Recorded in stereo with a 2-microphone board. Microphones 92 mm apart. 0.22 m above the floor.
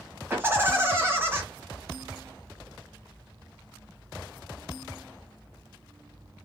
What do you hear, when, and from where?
0.3 s laughter: 25° right (ahead or behind), 1.0 m